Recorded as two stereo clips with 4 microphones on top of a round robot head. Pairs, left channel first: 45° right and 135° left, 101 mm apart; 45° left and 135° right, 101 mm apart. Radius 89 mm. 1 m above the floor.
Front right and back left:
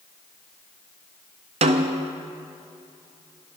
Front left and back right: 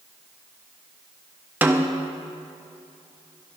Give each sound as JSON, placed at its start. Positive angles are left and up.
{"t": 1.6, "sound": "a snare drum", "azimuth_deg": 155, "distance_m": 0.6}